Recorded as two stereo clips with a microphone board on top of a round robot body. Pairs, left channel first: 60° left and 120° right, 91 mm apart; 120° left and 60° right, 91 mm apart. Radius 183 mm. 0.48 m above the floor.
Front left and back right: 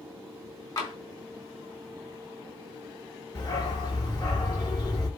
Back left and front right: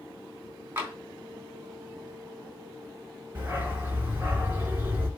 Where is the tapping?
10° left, 4 m.